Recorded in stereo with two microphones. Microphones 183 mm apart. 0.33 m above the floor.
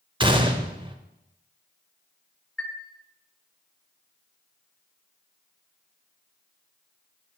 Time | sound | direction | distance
0.2 | a gunshot | 25° right (ahead or behind) | 0.6 m
2.6 | a chime | 5° left (ahead or behind) | 1.3 m